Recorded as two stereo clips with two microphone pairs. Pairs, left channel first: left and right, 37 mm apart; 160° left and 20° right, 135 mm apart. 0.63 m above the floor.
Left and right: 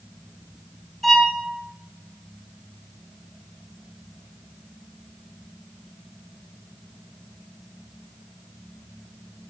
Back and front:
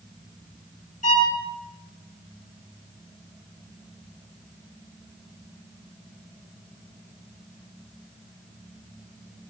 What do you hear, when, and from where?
1.0 s a violin: 175° left, 1.4 m